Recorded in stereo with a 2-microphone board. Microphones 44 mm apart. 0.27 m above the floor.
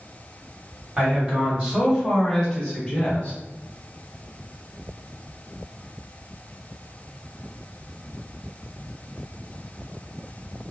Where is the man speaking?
20° right (ahead or behind), 1.8 m; by 3.4 s 25° left (ahead or behind), 1.7 m.